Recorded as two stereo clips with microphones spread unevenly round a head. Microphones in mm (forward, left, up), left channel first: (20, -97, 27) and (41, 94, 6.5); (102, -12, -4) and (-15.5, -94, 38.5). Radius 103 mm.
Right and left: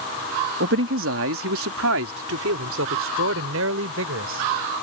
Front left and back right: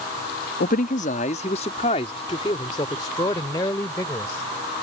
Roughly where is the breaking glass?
I don't hear breaking glass.